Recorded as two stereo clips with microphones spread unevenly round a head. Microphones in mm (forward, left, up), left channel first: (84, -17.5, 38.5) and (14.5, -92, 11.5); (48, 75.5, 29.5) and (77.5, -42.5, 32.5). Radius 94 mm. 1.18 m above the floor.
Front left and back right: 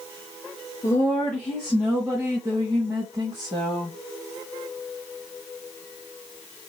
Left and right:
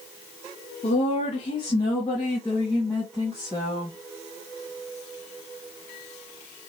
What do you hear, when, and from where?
0.8 s a woman speaking: 115° left, 1.0 m; by 4.0 s 160° right, 1.8 m